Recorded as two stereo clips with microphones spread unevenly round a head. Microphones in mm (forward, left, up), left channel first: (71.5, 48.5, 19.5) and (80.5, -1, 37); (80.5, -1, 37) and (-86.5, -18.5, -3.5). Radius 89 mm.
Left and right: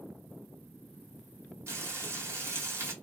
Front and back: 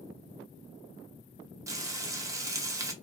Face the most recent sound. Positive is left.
turn(degrees=-95)